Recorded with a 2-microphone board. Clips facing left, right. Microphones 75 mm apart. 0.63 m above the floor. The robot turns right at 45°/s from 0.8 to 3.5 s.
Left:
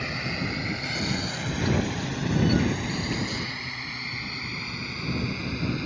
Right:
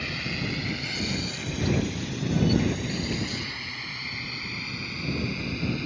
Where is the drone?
25° left (ahead or behind); by 5.9 s 20° left (ahead or behind).